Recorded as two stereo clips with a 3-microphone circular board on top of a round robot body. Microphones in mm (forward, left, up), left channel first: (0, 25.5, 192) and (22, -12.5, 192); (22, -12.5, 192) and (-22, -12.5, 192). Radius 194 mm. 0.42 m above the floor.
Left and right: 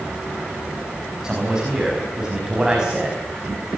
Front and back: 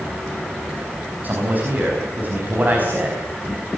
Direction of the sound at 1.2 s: 135° right.